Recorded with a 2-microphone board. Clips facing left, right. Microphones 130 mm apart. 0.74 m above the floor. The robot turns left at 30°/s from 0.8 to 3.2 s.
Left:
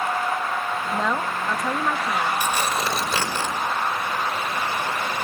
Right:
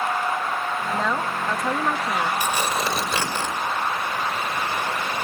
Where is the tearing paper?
15° right (ahead or behind), 4 m; by 3.5 s 10° left (ahead or behind), 4 m.